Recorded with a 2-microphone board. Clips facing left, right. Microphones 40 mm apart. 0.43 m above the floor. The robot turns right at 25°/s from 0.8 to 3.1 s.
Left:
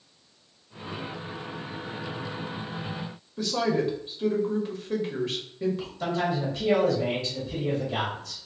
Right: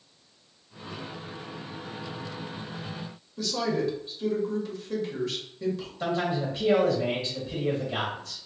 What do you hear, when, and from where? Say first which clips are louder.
3.4 s a woman speaking: left 2 dB; 30° left (ahead or behind), 1.2 m
6.0 s a man speaking: even; 15° right (ahead or behind), 2.0 m